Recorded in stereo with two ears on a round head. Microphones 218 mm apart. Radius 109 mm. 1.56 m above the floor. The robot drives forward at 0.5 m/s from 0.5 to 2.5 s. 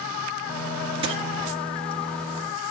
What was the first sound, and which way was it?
A dropped coin, 25° right (ahead or behind).